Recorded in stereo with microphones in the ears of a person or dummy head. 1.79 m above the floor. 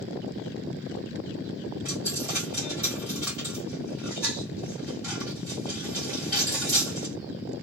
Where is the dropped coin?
10° right (ahead or behind), 1.5 m.